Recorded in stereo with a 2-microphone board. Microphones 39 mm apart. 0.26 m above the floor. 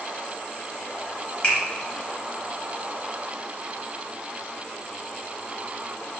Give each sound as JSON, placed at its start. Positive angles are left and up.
{"t": 1.4, "sound": "a finger snap", "side_deg": 25, "distance_m": 1.2}